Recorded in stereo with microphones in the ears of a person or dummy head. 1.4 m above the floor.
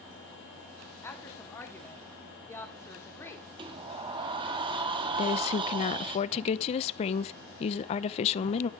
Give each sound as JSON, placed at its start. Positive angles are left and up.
{"t": 1.0, "sound": "a woman speaking", "side_deg": 10, "distance_m": 2.0}
{"t": 3.6, "sound": "a sliding door", "side_deg": -25, "distance_m": 1.4}
{"t": 5.2, "sound": "a woman speaking", "side_deg": 40, "distance_m": 0.7}